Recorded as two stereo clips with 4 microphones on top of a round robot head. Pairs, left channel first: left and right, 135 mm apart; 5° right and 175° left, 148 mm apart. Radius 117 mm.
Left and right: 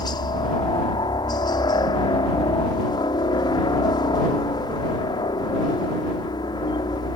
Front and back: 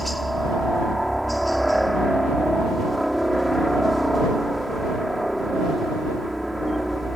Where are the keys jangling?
No keys jangling in this recording.